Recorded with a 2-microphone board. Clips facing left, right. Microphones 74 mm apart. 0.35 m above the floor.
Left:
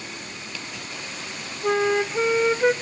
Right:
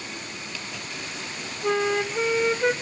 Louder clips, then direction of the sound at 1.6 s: Left 2 dB; 10° left (ahead or behind).